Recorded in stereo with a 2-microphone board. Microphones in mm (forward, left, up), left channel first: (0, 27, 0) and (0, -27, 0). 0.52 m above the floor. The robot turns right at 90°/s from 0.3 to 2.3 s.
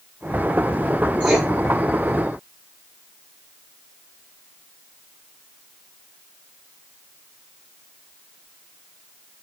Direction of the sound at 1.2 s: 20° right (ahead or behind).